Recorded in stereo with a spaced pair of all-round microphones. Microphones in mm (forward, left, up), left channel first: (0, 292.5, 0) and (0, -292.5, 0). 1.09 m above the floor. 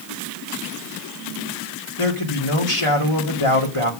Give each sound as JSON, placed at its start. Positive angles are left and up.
{"t": 2.0, "sound": "a man speaking", "side_deg": 60, "distance_m": 2.5}